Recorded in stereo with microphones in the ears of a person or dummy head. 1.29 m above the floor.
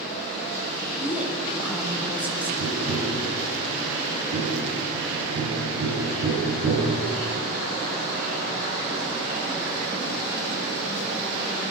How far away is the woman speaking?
About 6.5 m.